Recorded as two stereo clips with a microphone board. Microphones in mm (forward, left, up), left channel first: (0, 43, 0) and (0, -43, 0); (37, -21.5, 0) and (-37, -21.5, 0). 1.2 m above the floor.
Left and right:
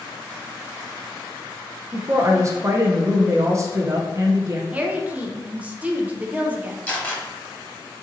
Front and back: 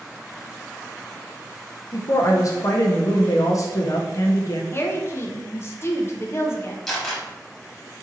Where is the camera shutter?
75° left, 1.0 m.